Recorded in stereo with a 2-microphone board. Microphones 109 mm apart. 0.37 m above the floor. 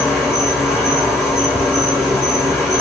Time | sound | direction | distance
0.0 | an insect | 5° right (ahead or behind) | 2.5 m